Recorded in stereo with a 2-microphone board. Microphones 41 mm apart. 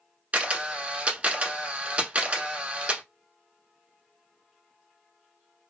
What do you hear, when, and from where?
0.3 s a camera shutter: 35° right (ahead or behind), 0.9 m